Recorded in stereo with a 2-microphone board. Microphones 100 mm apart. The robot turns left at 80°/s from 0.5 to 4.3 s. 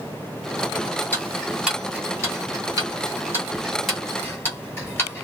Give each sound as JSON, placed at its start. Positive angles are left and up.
{"t": 1.1, "sound": "ticking", "side_deg": 20, "distance_m": 1.9}